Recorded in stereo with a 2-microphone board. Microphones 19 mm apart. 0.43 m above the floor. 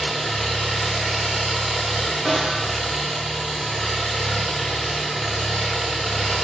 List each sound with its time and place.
0.0 s an engine running: 25° left (ahead or behind), 1.1 m
2.2 s a snare drum: 25° left (ahead or behind), 1.5 m